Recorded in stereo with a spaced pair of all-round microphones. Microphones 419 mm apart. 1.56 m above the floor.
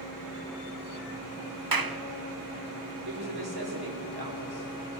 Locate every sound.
1.7 s a clap: 55° right (ahead or behind), 1.0 m
3.0 s a woman speaking: 65° right (ahead or behind), 5 m